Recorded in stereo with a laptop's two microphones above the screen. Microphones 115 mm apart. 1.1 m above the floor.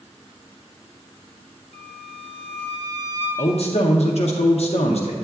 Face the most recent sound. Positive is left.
turn(degrees=65)  # may be behind; listen again after turning